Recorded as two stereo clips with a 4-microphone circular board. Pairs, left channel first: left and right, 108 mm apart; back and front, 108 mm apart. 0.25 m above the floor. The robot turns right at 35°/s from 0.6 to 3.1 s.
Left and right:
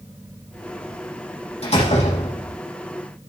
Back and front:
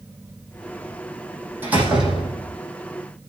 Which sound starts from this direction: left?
A door slam, at 1.6 s.